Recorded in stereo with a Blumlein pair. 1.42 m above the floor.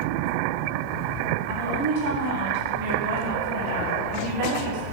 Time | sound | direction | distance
1.5 | a woman speaking | 50° right | 1.2 m